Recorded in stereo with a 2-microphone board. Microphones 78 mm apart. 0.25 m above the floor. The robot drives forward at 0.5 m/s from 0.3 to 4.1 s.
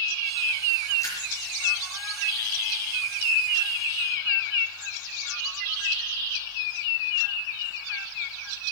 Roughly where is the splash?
Left.